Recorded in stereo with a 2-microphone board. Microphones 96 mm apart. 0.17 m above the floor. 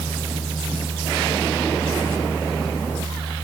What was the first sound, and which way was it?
Only background noise.